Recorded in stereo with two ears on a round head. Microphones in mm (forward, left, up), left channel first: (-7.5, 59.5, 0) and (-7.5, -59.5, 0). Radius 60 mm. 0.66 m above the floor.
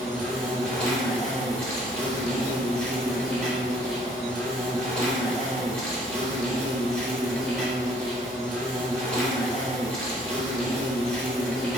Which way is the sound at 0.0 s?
5° left (ahead or behind).